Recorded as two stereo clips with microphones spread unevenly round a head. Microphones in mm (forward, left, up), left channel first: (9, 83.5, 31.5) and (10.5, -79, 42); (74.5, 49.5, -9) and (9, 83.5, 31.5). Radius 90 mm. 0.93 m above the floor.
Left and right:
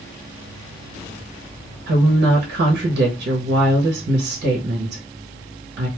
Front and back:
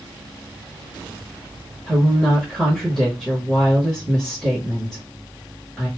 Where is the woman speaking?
100° right, 0.9 m.